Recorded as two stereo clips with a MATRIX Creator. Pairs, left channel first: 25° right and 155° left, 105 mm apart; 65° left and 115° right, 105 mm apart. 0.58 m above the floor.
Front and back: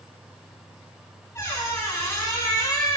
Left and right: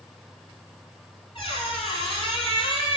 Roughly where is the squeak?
Ahead left.